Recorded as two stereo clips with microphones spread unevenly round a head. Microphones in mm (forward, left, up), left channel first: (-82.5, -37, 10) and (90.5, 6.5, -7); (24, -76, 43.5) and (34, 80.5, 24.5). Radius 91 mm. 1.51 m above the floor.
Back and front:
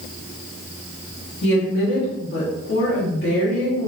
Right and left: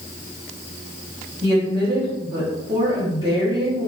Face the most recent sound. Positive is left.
turn(degrees=160)